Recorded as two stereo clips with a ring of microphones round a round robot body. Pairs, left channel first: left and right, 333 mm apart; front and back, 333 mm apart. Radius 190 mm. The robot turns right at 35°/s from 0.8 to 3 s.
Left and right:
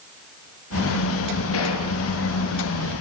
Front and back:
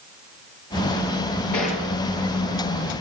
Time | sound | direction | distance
1.5 | a gunshot | 35° left | 6 m